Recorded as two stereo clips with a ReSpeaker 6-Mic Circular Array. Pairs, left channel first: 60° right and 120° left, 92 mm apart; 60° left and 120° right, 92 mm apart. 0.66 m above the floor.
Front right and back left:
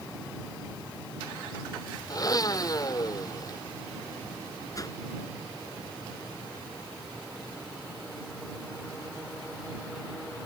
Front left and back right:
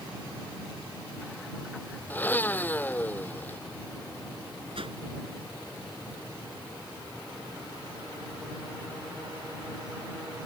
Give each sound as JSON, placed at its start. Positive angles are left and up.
{"t": 2.1, "sound": "a blender", "azimuth_deg": -10}
{"t": 4.8, "sound": "a whoosh", "azimuth_deg": -110}